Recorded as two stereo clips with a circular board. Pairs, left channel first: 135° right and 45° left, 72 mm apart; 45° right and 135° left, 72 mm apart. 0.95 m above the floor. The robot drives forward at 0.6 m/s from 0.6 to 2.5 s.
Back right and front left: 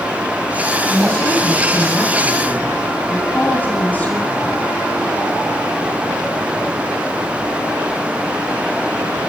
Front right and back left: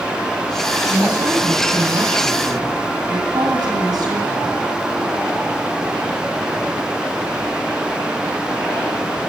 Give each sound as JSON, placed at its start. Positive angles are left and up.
{"t": 0.9, "sound": "a woman speaking", "azimuth_deg": 155, "distance_m": 8.0}